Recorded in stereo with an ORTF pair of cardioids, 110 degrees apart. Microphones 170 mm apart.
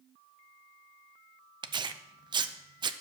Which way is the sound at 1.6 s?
25° right.